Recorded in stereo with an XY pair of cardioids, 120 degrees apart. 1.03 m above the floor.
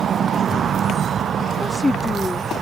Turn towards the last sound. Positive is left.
turn(degrees=10)